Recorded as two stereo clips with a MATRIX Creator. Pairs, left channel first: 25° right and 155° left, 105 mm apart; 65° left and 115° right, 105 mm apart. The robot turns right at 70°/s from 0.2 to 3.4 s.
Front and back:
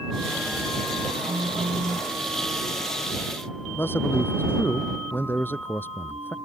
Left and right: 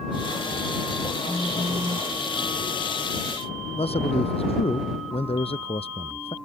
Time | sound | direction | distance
1.3 | a phone buzzing | 150° left | ?
3.8 | a man speaking | 50° left | ?